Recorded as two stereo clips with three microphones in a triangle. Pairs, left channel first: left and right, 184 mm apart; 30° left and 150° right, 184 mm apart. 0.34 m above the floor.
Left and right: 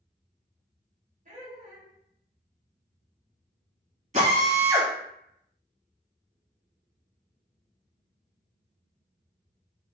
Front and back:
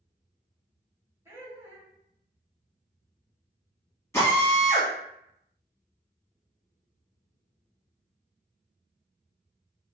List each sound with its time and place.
1.2 s laughter: 80° right, 1.4 m
4.1 s a drill: 45° right, 1.4 m